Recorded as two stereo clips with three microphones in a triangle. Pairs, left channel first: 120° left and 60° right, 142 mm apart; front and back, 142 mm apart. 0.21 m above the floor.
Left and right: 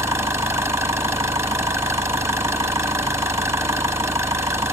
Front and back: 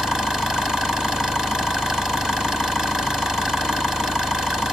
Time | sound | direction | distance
0.0 | an engine running | 100° right | 1.3 m